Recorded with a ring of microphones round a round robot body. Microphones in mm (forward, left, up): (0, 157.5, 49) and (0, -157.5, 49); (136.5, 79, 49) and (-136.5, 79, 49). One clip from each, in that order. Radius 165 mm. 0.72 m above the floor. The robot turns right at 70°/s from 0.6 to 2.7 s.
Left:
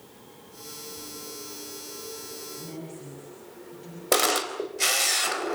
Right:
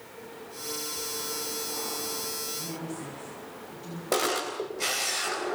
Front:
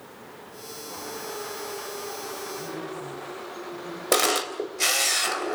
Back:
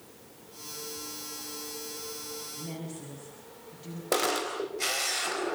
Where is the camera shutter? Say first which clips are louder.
Left 4 dB, front 5 dB; 35° left, 4 m.